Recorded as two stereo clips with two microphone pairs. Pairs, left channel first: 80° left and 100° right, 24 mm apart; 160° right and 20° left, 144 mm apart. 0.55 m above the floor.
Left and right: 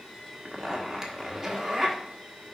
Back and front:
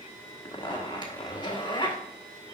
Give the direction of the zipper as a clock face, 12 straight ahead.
4 o'clock.